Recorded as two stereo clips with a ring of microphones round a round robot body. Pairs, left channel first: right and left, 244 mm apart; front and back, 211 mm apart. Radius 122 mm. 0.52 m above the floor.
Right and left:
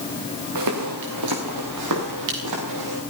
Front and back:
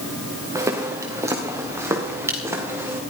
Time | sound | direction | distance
0.6 | footsteps | 105° left | 4 m